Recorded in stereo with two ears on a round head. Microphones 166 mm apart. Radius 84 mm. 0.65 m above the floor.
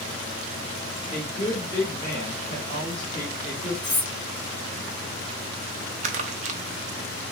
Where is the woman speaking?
40° left (ahead or behind), 1.5 m.